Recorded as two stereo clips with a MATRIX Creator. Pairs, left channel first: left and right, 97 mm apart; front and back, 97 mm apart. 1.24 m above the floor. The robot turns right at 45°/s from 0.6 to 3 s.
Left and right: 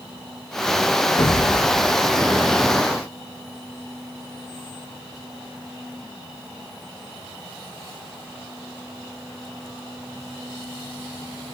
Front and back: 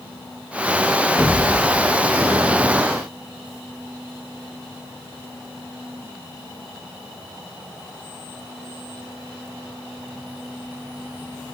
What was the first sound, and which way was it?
An explosion, 80° left.